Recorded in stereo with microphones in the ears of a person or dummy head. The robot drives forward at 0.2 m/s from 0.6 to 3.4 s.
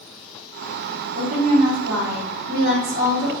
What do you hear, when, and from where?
1.1 s a woman speaking: 50° right (ahead or behind), 0.5 m; by 3.3 s 30° right (ahead or behind), 0.8 m